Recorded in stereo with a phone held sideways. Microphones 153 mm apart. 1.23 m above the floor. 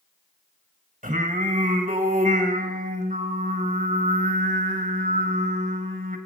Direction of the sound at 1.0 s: 55° right (ahead or behind).